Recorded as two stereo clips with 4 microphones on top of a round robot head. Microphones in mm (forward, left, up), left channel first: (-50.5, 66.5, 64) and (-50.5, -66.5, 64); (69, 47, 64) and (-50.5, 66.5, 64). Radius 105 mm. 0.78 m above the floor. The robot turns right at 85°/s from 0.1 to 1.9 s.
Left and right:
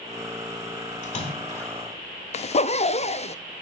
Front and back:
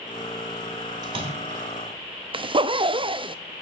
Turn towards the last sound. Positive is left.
turn(degrees=125)